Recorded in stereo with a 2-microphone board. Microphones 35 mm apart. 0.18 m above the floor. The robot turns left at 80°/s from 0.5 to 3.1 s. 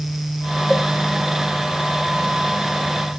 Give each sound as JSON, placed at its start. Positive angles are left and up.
{"t": 0.7, "sound": "a cowbell", "side_deg": 10, "distance_m": 3.5}